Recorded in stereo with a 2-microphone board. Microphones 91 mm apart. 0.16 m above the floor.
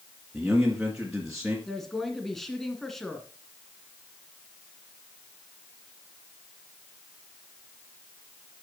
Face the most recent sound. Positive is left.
turn(degrees=0)  # may be behind; listen again after turning